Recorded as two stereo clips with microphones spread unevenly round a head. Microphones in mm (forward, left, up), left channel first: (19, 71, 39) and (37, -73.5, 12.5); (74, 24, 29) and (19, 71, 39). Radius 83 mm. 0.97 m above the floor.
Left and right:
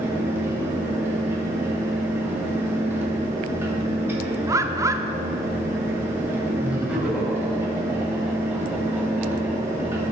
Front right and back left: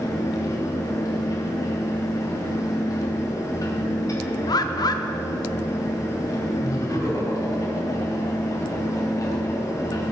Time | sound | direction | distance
0.0 | a fan | 10° right | 3 m
4.5 | a bird | 10° right | 0.9 m
6.6 | laughter | straight ahead | 4.5 m